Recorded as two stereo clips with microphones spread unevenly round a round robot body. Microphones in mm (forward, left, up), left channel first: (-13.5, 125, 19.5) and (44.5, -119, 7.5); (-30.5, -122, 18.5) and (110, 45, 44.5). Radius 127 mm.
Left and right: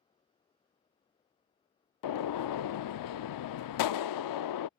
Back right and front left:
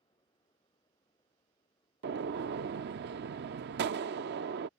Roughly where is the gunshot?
Left.